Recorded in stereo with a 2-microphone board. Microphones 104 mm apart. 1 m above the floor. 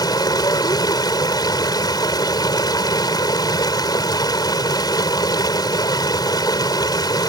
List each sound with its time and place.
0.0 s running water: 40° left (ahead or behind)